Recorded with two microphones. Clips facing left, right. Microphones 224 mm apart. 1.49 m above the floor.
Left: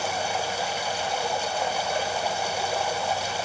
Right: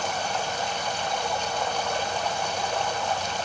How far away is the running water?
About 1.2 m.